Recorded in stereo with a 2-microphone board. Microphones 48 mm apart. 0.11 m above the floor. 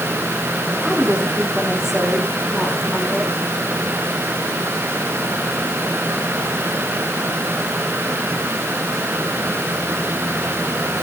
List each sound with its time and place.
0.8 s a woman speaking: 20° right (ahead or behind), 6 m; by 3.3 s 5° left (ahead or behind), 7 m